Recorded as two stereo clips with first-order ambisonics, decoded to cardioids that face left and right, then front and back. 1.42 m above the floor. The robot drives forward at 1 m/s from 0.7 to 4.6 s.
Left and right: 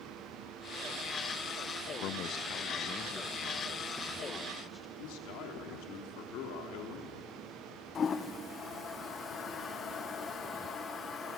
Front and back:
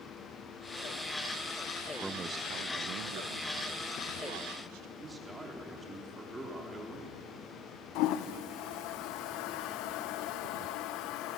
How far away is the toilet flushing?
About 0.7 m.